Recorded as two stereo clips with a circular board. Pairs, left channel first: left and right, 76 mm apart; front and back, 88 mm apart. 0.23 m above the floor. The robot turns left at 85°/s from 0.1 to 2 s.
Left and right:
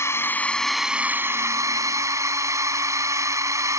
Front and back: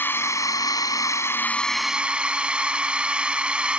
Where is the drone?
55° left; by 3.8 s 105° right.